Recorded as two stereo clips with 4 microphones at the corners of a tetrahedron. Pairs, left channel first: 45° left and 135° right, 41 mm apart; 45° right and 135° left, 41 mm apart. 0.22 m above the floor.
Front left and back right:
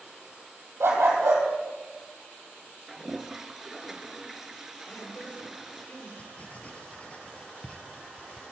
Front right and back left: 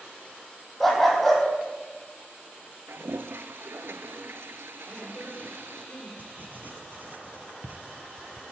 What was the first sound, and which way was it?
A dog barking, 130° right.